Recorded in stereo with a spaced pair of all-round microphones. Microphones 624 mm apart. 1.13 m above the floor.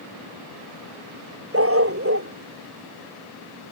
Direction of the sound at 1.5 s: 25° right (ahead or behind).